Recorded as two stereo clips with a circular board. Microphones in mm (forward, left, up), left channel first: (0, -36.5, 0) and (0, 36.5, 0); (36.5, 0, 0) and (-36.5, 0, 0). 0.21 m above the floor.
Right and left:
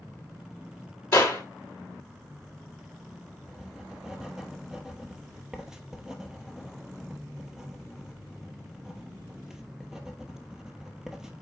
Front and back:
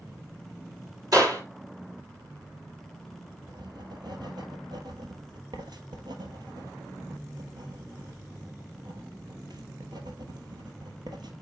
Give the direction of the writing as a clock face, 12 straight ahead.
6 o'clock.